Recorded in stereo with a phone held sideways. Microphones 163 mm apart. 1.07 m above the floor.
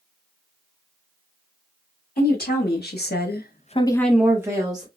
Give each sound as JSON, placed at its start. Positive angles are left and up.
{"t": 2.2, "sound": "a woman speaking", "side_deg": 70, "distance_m": 1.9}